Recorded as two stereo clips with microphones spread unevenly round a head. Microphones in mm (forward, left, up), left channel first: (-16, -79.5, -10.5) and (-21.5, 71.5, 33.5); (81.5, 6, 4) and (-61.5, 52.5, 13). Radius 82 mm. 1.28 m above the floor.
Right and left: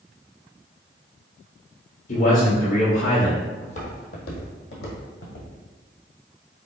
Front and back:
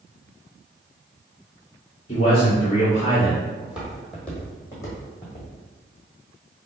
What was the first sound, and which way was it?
A man speaking, 75° right.